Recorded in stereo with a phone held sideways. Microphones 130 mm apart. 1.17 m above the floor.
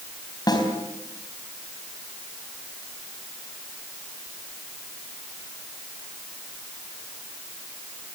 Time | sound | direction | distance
0.5 | a snare drum | 30° left (ahead or behind) | 4 m